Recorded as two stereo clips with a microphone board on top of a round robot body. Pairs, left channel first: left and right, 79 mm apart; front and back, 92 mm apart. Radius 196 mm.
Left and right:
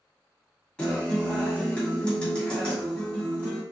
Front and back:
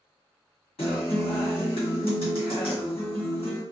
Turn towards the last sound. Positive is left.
turn(degrees=10)